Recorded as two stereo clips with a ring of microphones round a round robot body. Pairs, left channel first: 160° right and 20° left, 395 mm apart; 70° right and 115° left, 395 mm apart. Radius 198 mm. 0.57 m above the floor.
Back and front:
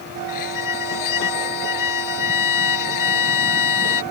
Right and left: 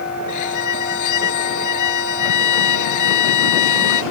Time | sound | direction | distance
0.3 | a violin | 115° right | ?